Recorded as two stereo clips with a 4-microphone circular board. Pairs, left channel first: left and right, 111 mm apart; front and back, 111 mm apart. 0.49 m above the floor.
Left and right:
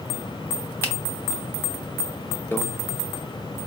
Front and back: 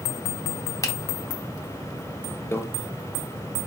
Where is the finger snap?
35° left, 0.8 m.